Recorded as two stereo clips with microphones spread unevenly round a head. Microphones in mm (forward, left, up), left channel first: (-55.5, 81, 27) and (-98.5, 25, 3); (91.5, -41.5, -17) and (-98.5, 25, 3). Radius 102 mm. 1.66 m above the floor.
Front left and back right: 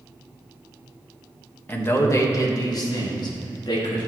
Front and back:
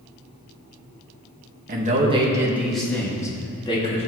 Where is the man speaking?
110° left, 1.8 m; by 4.1 s 45° left, 3 m.